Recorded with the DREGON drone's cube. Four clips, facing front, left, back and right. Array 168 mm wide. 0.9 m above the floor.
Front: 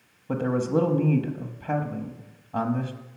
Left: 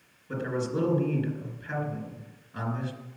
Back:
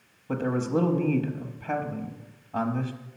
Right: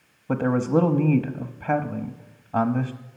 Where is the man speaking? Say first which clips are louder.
Right 9 dB, front 2 dB; 75° right, 0.9 m.